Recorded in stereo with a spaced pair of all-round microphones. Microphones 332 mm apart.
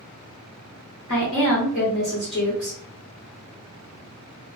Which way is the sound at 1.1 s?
40° left (ahead or behind).